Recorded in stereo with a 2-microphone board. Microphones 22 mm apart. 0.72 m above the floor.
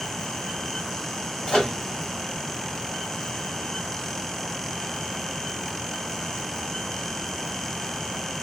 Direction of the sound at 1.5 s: 50° left (ahead or behind).